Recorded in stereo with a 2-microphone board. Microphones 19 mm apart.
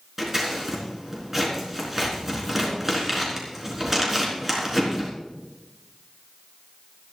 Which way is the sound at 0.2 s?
10° right (ahead or behind).